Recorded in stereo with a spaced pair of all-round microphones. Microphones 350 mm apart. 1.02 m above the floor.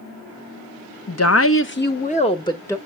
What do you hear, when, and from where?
1.1 s a woman speaking: 45° left (ahead or behind), 0.8 m; by 2.8 s 5° left (ahead or behind), 1.0 m